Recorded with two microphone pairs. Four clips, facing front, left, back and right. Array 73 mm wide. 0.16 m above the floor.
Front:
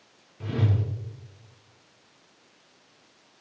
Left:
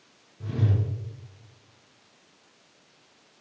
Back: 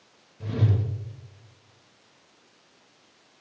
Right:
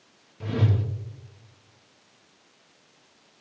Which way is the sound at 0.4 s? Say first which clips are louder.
Right 2 dB, even; 45° right.